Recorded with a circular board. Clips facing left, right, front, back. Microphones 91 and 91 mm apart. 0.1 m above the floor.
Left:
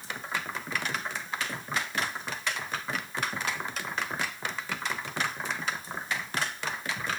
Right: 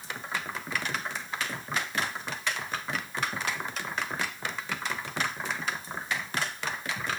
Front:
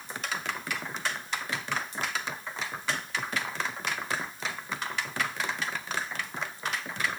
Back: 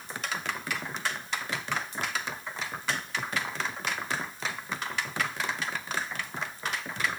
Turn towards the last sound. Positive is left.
No sound to turn to.